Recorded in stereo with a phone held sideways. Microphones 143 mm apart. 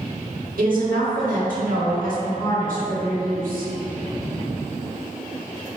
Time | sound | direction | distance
0.6 | a woman speaking | 70° right (ahead or behind) | 1.2 m